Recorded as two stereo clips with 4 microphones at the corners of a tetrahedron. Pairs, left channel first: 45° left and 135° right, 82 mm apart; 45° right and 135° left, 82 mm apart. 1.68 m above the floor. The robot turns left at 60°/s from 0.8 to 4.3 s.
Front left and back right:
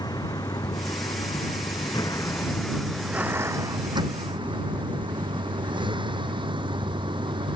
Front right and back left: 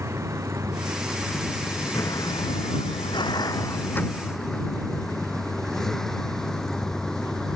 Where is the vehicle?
80° left; by 7.6 s 125° right.